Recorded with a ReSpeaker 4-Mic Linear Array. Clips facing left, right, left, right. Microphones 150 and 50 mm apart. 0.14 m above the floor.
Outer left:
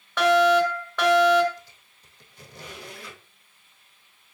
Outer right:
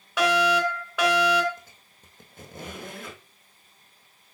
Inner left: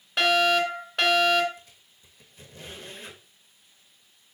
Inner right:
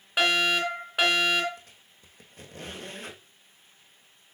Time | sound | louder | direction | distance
0.2 | a fire alarm | outer left 4 dB, inner left 3 dB | 10° right (ahead or behind) | 3 m
1.6 | a squeak | outer left 2 dB, even | 50° right (ahead or behind) | 2.5 m